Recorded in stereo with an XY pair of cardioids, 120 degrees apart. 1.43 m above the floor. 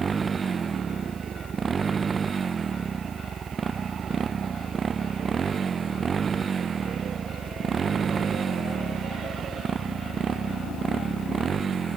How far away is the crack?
I don't hear a crack.